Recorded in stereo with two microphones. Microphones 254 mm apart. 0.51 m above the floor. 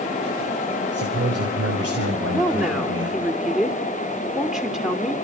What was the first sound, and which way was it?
A man speaking, 65° right (ahead or behind).